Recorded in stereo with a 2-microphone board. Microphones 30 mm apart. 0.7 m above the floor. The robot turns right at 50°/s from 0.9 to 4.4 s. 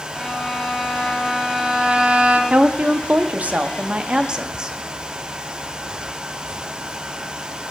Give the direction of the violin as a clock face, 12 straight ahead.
7 o'clock.